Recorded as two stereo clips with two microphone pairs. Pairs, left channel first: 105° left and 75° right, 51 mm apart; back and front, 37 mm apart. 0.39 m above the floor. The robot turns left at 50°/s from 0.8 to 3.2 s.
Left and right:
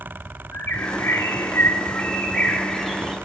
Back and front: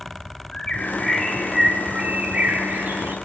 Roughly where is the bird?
Behind left.